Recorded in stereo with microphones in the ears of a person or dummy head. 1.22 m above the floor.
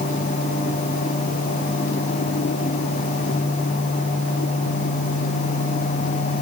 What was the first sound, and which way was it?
Only background noise.